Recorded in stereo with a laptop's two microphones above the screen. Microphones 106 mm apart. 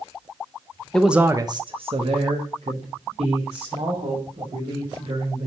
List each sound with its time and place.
0.9 s a man speaking: 5° left (ahead or behind), 0.7 m; by 5.5 s 80° right, 5 m